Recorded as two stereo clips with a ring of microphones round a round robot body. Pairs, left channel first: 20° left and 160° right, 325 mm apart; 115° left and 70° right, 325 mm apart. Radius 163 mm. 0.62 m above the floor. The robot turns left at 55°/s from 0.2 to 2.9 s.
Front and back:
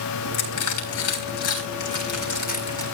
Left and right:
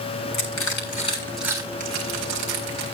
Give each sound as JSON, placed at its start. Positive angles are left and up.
{"t": 0.3, "sound": "crushing", "azimuth_deg": 80, "distance_m": 7.5}